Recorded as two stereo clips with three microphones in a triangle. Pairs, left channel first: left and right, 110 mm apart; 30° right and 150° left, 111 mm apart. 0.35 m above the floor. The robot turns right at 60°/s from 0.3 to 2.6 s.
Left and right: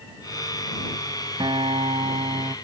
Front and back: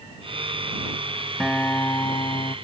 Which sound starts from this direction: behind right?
A guitar, at 1.4 s.